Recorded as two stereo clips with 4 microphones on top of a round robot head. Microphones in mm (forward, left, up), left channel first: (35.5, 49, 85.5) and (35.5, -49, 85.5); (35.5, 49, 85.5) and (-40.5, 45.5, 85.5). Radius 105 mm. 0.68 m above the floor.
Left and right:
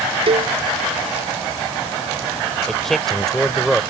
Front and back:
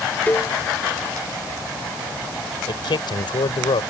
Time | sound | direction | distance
0.3 | a cowbell | 70° right | ?
2.7 | a man speaking | 5° left | ?